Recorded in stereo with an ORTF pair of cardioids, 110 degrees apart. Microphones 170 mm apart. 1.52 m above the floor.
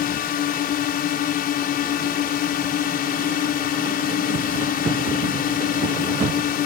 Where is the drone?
60° left.